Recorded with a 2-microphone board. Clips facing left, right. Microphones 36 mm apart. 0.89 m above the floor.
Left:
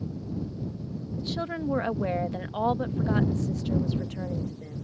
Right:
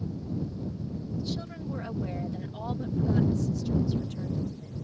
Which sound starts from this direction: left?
A woman speaking, at 1.2 s.